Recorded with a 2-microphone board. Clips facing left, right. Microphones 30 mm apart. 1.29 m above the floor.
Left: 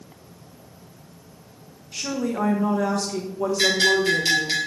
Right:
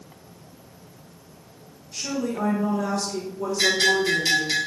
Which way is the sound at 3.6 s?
30° left (ahead or behind).